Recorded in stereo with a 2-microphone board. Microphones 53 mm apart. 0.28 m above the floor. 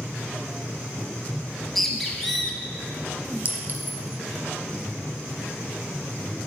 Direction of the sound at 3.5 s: 40° right (ahead or behind).